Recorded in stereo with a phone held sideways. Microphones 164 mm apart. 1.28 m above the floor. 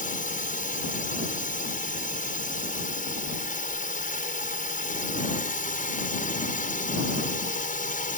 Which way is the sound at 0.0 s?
55° left (ahead or behind).